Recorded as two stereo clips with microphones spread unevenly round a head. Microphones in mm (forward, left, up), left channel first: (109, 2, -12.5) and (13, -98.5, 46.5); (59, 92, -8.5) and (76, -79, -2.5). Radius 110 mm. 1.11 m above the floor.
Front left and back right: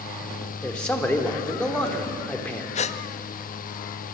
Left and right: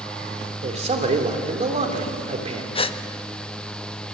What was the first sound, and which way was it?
A man speaking, 35° right.